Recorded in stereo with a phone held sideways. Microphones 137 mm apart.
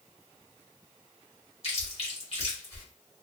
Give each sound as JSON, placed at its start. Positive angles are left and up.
{"t": 1.6, "sound": "chewing", "side_deg": 45, "distance_m": 1.1}